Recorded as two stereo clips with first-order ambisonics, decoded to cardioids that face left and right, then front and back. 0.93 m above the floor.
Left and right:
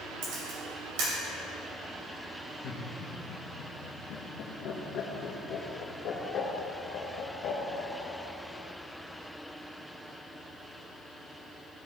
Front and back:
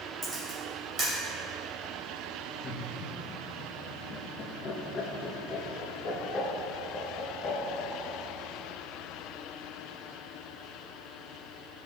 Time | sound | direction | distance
0.2 | a camera shutter | 105° right | 3 m
2.6 | laughter | 60° left | 1.2 m